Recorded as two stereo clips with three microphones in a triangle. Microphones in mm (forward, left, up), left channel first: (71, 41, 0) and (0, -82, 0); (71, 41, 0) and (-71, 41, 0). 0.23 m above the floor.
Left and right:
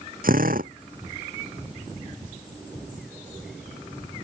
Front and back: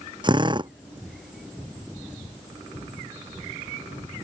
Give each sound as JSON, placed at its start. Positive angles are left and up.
{"t": 0.2, "sound": "a drill", "azimuth_deg": -125}